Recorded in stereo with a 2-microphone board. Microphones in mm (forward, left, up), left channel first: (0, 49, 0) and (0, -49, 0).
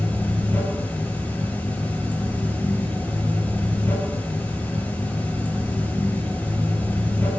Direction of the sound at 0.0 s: 20° left (ahead or behind).